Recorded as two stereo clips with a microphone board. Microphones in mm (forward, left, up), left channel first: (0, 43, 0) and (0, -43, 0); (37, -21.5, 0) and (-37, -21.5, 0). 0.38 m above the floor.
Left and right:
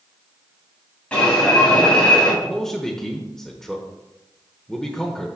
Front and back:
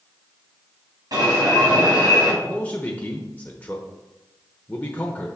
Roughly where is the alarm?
Behind.